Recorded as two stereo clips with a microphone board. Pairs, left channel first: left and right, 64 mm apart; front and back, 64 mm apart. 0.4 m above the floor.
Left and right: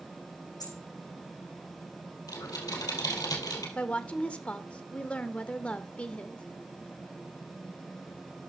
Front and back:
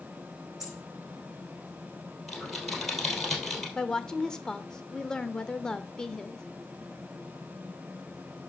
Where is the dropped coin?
100° left, 5.5 m.